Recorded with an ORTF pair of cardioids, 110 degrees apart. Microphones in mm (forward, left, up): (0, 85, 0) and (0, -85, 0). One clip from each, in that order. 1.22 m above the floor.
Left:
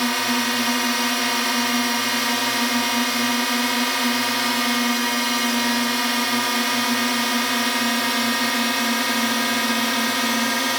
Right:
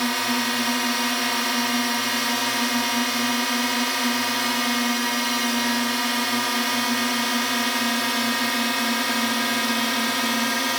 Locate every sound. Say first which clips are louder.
0.0 s a drone: left 2 dB; 15° left